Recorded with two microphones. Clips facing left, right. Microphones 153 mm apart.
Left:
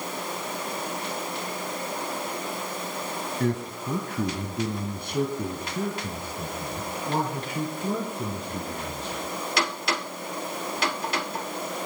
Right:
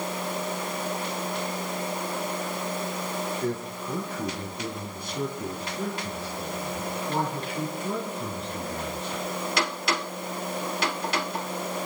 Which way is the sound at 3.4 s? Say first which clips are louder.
Left 2 dB; 70° left (ahead or behind).